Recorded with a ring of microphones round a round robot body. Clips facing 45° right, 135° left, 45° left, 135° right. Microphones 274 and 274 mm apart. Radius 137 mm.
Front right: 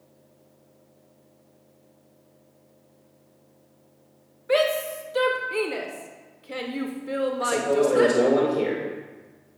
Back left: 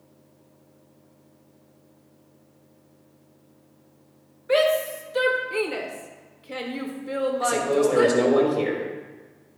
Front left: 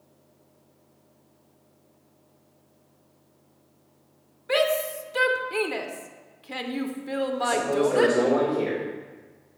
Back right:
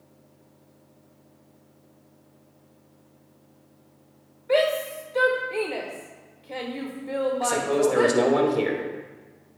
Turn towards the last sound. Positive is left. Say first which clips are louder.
# even, even
turn(degrees=-155)